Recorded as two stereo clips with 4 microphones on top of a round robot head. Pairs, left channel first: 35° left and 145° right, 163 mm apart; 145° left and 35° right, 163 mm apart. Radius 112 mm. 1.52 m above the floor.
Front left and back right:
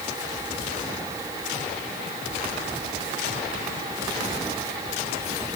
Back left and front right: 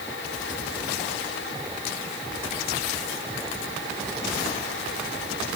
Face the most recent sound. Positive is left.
No sound to turn to.